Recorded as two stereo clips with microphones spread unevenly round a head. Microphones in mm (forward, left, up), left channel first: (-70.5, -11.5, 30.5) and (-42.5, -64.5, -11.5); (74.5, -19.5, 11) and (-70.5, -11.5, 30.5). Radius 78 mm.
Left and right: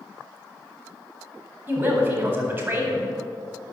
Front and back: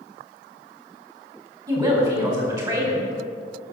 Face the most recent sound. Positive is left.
turn(degrees=-120)